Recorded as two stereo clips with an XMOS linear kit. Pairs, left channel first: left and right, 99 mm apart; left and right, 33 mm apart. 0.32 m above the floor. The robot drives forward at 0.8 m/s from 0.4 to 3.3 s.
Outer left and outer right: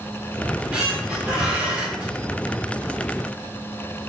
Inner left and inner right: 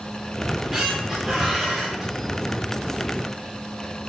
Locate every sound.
0.4 s a squeak: 10° right (ahead or behind), 4.5 m